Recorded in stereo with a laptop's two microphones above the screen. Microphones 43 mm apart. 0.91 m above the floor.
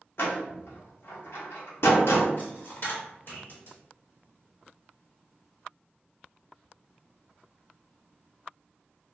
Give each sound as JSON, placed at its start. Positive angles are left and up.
{"t": 0.2, "sound": "a door slam", "side_deg": 60, "distance_m": 0.8}
{"t": 2.4, "sound": "a dropped coin", "side_deg": 45, "distance_m": 0.7}